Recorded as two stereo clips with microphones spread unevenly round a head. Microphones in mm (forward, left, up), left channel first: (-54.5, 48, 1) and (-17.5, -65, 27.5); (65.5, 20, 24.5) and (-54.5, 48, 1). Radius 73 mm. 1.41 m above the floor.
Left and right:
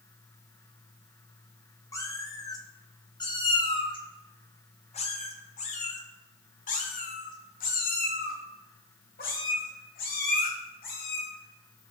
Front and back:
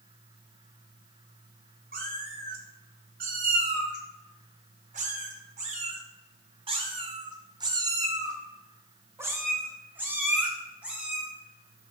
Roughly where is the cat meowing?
Behind.